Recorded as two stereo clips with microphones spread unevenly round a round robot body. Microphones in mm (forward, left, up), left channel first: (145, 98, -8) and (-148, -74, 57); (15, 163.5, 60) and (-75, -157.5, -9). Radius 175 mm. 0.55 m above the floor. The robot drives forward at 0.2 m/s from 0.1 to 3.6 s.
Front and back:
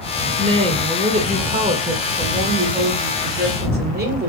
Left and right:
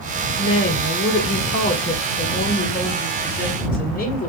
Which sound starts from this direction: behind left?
A woman speaking, at 0.4 s.